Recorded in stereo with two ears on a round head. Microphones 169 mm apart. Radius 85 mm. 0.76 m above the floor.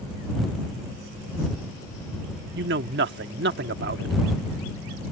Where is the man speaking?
60° right (ahead or behind).